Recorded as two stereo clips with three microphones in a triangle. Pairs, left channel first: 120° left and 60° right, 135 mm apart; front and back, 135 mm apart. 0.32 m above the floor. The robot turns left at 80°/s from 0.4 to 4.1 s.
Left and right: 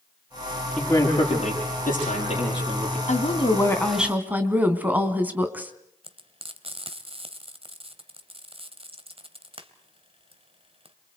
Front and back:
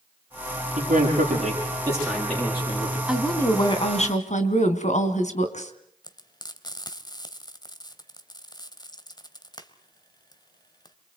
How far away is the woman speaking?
About 3 m.